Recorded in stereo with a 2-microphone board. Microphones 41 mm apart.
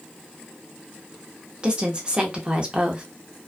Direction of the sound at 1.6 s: 25° right (ahead or behind).